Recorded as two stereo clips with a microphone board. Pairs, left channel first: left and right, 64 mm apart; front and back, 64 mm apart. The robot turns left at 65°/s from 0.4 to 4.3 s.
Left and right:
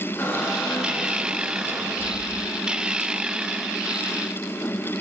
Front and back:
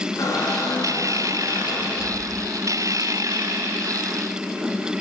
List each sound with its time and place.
0.2 s a squeak: 35° left, 2 m; by 2.5 s 100° right, 2 m